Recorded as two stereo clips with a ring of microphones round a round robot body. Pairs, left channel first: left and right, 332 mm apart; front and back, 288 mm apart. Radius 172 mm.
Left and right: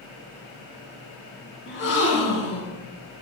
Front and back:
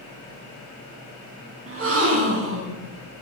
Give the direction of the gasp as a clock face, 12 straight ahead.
7 o'clock.